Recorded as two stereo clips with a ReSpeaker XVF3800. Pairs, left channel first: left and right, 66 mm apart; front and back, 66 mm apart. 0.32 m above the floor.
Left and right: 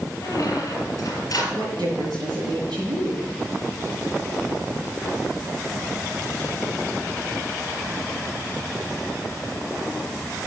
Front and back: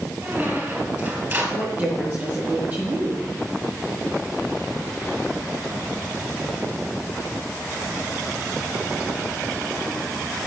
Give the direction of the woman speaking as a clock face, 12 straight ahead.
4 o'clock.